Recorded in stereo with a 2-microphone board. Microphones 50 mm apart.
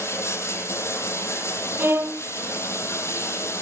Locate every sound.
0.0 s running water: 65° left (ahead or behind), 3.5 m
1.8 s a violin: 55° right (ahead or behind), 1.3 m